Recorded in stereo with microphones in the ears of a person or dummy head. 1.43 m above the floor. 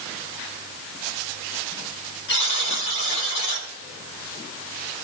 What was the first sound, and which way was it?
A buzzer, 65° left (ahead or behind).